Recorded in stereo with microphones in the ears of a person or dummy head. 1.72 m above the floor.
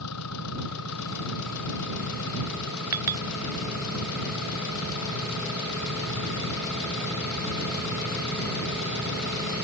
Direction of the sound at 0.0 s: 85° left.